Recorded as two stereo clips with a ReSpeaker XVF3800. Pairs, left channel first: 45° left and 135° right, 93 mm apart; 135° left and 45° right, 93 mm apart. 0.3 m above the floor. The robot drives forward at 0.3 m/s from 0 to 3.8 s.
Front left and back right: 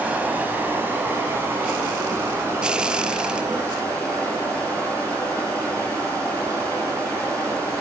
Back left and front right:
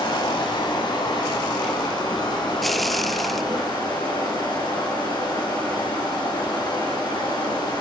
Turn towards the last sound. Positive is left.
turn(degrees=170)